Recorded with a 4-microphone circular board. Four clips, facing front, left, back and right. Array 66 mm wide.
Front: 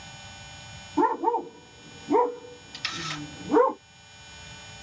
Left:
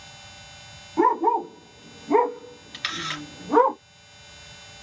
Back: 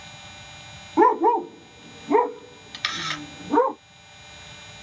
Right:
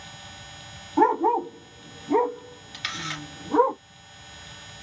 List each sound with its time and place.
1.0 s a dog barking: 170° right, 1.0 m; by 3.7 s 90° left, 1.2 m
2.7 s a camera shutter: 155° left, 1.9 m